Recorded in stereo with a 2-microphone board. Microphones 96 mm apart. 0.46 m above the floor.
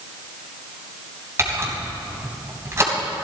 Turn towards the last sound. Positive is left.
turn(degrees=-30)  # may be behind; listen again after turning